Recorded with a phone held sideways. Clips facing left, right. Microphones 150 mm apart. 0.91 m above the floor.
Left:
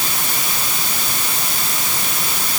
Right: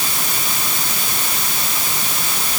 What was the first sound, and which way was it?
Only background noise.